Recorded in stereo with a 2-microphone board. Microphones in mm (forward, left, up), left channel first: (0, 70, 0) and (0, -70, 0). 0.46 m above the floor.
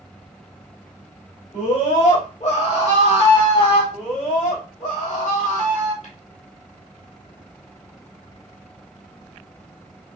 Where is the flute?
No flute in this recording.